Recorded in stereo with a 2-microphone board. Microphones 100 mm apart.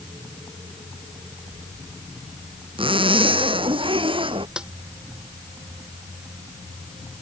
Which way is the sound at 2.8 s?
60° right (ahead or behind).